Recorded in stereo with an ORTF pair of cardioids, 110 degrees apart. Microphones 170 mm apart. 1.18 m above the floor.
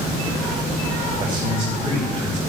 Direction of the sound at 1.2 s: 35° right.